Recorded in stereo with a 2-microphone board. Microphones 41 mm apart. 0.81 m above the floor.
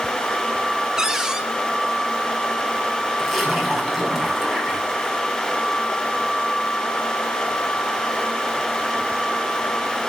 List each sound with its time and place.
1.0 s a cupboard door: 15° right (ahead or behind), 1.4 m
3.2 s a splash: centre (ahead or behind), 7 m